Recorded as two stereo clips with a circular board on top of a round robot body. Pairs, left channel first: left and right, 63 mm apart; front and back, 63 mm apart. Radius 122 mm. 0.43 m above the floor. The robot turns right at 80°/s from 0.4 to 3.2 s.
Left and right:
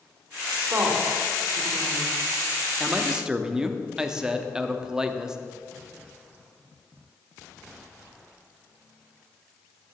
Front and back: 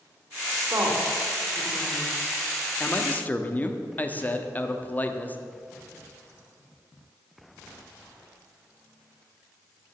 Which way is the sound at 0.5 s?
165° right.